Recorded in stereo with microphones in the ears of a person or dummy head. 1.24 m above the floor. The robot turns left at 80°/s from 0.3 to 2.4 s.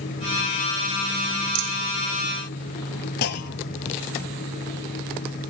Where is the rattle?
45° right (ahead or behind), 1.0 m; by 1.8 s 30° right (ahead or behind), 1.0 m.